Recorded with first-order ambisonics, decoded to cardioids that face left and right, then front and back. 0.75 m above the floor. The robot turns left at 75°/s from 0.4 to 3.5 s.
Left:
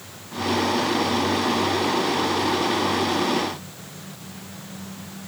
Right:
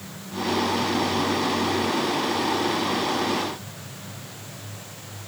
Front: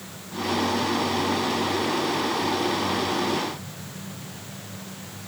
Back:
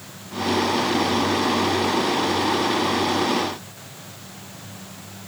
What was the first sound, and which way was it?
Only background noise.